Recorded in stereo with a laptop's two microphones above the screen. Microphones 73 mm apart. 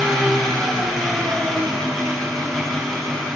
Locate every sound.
0.0 s an engine running: 5° left (ahead or behind), 2 m